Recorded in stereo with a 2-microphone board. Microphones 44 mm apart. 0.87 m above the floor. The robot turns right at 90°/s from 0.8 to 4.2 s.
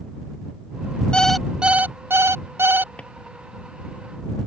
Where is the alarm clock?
160° left; by 2.9 s 40° right.